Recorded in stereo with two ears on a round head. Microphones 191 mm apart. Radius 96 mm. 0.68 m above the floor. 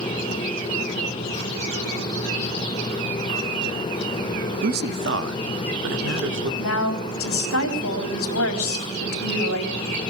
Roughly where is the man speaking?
Right.